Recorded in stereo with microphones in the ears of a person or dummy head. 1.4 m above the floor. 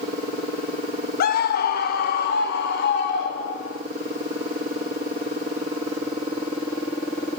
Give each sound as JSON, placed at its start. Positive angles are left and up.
{"t": 1.2, "sound": "a scream", "side_deg": 50, "distance_m": 1.2}